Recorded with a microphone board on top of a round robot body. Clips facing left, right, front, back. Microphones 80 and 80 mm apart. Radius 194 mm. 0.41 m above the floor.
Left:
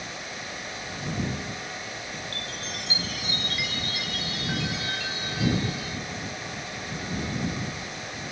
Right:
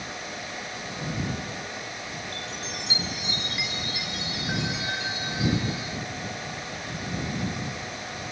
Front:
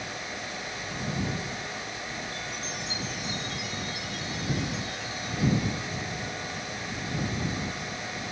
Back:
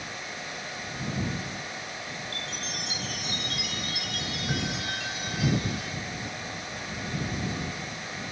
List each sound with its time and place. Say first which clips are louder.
2.3 s a chime: right 1 dB, front 1 dB; 160° right